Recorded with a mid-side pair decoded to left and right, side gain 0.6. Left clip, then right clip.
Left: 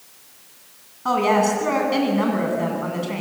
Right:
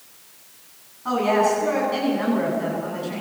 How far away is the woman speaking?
About 10 m.